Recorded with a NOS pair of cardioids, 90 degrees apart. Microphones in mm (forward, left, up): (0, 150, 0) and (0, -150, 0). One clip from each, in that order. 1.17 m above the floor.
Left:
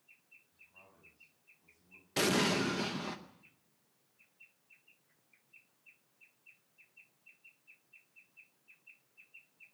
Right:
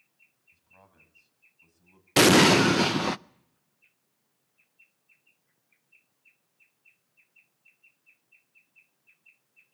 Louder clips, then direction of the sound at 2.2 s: Right 13 dB; 60° right.